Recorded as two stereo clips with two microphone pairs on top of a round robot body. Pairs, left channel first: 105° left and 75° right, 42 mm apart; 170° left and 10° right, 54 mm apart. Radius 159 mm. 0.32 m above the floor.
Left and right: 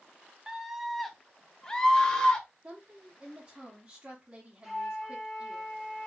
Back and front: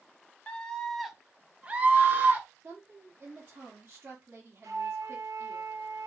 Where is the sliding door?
I don't hear a sliding door.